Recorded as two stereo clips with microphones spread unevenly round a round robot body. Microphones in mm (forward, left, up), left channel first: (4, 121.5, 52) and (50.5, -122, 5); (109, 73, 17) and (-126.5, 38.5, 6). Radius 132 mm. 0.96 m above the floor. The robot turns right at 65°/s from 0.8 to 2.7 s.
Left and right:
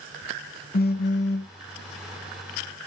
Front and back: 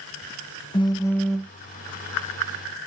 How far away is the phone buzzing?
About 0.8 m.